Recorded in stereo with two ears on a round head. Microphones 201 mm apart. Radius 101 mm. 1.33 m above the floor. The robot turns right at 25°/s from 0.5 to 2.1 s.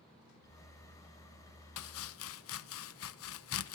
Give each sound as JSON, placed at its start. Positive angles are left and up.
{"t": 1.8, "sound": "chopping", "side_deg": 80, "distance_m": 1.0}